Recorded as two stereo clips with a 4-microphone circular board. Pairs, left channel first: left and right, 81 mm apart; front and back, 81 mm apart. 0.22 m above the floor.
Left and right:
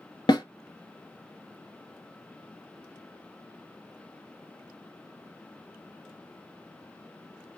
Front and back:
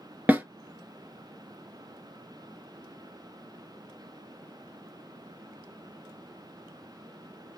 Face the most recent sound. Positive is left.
turn(degrees=110)